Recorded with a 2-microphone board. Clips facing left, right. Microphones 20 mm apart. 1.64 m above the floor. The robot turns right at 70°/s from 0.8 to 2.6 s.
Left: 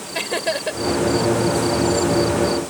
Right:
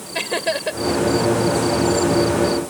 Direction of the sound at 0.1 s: 5° right (ahead or behind).